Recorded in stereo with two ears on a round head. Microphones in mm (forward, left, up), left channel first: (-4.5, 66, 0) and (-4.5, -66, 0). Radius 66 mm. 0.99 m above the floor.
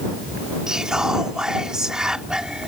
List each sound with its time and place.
0.7 s whispering: 5° right (ahead or behind)